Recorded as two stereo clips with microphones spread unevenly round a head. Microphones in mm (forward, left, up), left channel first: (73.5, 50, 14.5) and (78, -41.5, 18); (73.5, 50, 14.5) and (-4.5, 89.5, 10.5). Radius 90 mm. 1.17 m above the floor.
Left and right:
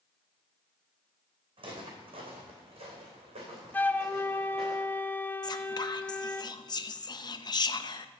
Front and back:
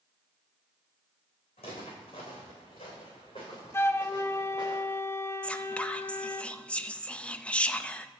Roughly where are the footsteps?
Ahead right.